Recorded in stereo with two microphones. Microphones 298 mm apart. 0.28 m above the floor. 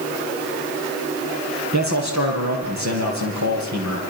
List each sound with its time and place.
1.7 s a man speaking: 80° right, 6.5 m